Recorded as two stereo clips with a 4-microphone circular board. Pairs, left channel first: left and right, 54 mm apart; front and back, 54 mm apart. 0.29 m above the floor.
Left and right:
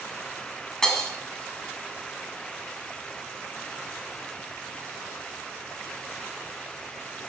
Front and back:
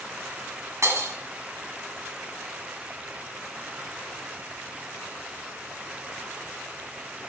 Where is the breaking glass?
170° left, 1.6 m.